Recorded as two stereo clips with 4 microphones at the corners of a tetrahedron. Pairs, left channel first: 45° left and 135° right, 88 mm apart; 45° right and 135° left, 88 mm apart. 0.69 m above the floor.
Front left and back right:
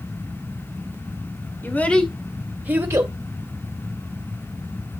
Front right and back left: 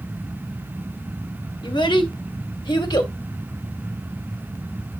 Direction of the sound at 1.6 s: 20° right.